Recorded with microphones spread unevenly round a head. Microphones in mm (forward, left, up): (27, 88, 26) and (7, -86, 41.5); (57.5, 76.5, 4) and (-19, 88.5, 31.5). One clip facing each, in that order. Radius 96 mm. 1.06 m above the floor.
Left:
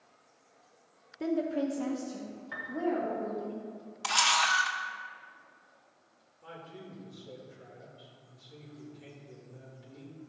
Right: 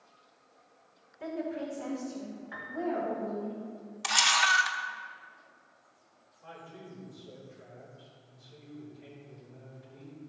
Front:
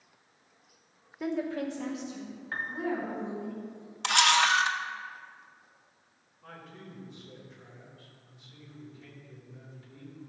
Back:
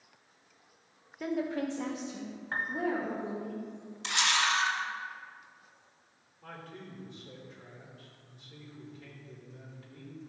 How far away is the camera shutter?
About 0.6 m.